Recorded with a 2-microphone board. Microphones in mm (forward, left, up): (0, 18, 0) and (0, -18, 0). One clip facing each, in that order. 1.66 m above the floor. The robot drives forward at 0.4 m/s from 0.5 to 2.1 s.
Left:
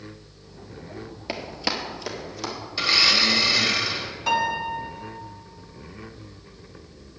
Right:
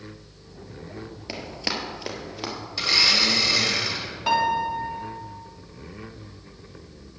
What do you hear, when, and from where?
1.3 s running footsteps: 15° left (ahead or behind), 1.9 m; by 2.5 s 25° right (ahead or behind), 2.5 m
2.8 s a blender: 10° left (ahead or behind), 2 m
4.3 s a piano: 15° right (ahead or behind), 1.9 m